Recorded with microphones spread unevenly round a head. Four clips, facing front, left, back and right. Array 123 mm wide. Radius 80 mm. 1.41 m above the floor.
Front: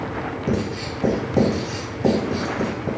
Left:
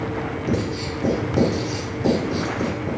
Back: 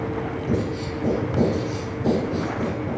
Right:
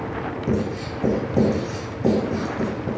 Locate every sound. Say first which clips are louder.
0.5 s writing: right 1 dB, front 1 dB; straight ahead, 3 m